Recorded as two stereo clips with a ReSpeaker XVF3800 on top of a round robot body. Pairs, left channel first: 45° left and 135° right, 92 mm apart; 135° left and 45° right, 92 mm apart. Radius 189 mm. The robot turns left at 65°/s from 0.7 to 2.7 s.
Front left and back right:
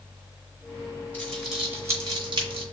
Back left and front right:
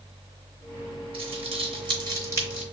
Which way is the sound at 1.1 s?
30° right.